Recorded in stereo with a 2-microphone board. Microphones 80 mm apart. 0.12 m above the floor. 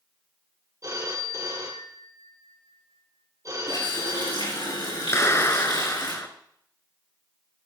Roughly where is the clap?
Left.